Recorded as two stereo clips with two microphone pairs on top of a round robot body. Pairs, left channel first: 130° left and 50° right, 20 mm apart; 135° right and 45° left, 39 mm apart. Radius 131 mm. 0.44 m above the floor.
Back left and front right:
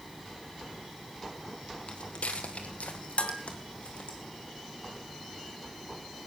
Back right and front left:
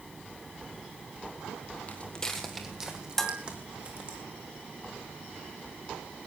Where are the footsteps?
170° left, 1.1 m; by 4.2 s 100° left, 3 m.